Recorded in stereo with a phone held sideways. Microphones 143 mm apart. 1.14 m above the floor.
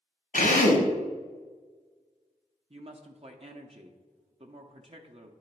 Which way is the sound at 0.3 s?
70° left (ahead or behind).